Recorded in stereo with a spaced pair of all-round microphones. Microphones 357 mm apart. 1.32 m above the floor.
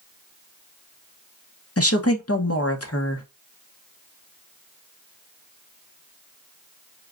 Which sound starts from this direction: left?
A woman speaking, at 1.8 s.